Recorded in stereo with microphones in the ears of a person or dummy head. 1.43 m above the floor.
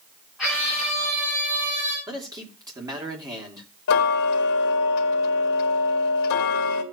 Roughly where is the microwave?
I don't hear a microwave.